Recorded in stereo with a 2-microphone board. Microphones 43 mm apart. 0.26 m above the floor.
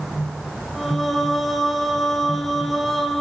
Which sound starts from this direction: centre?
Singing, at 0.8 s.